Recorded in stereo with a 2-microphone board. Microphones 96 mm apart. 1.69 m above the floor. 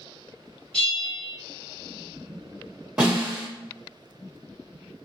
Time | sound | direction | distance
0.7 | a bell | 10° left (ahead or behind) | 1.9 m
3.0 | a snare drum | 10° right (ahead or behind) | 1.7 m